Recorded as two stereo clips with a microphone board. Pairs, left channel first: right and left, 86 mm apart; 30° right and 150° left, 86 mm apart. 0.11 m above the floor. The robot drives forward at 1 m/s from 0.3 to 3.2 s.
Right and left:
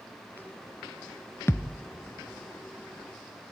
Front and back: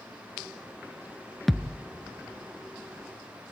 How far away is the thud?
About 0.7 m.